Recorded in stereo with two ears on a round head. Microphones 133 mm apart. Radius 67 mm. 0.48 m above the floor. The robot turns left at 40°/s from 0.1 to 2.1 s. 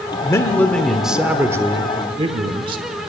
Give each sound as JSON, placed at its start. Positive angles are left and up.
{"t": 0.2, "sound": "a man speaking", "azimuth_deg": 30, "distance_m": 0.9}